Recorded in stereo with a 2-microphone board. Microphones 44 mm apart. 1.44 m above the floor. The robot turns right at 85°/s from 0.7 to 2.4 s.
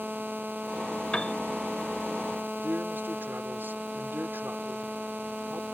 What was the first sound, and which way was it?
A piano, 25° left (ahead or behind).